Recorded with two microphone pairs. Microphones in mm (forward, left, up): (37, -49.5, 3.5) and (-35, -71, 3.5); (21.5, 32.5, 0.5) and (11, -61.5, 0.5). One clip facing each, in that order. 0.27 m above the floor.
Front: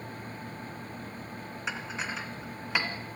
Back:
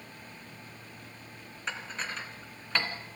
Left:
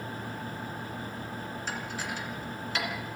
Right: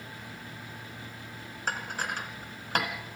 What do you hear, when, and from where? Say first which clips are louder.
1.7 s dishes clattering: front 1 dB, right 5 dB; 65° right, 2 m